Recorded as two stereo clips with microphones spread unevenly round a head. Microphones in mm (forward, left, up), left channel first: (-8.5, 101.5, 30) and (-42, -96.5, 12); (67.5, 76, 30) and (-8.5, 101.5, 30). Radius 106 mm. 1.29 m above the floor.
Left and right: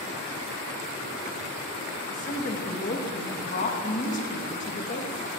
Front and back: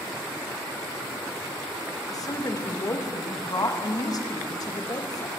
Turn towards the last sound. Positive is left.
turn(degrees=25)